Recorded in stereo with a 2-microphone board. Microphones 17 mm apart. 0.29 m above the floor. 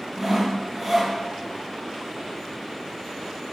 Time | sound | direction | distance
0.2 | sawing | 25° right (ahead or behind) | 3 m